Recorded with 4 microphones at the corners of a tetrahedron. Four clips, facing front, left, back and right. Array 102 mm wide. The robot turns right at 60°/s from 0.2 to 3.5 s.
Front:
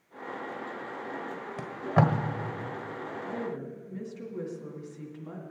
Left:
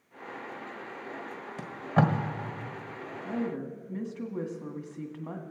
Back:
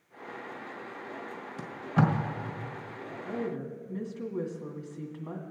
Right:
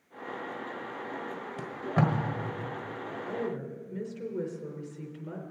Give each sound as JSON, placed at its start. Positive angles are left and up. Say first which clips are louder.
{"t": 1.6, "sound": "tape being pulled", "louder": "left 2 dB, front 2 dB", "azimuth_deg": -5, "distance_m": 1.4}
{"t": 3.2, "sound": "a woman speaking", "louder": "left 2 dB, back 3 dB", "azimuth_deg": 95, "distance_m": 1.9}